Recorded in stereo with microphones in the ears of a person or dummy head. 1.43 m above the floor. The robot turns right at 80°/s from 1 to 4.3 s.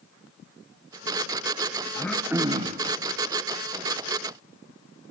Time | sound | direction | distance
1.9 | throat clearing | 155° left | 1.1 m